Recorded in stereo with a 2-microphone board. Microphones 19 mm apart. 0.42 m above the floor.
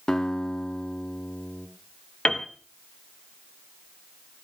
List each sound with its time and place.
0.1 s a guitar: 40° left (ahead or behind), 1.7 m
2.2 s a piano: 65° left (ahead or behind), 1.6 m